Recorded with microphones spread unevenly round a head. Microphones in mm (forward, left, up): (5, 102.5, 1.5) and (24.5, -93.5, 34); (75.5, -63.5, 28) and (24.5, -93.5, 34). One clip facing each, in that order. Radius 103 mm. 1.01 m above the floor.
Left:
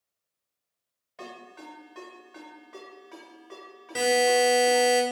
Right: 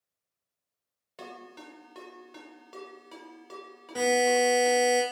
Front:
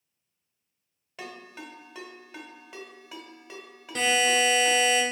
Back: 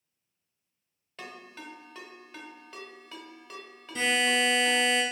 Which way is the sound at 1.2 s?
50° right.